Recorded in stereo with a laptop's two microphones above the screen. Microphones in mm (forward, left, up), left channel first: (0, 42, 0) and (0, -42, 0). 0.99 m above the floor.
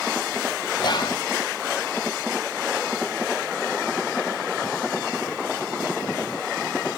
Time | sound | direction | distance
0.8 | whispering | 60° left (ahead or behind) | 0.7 m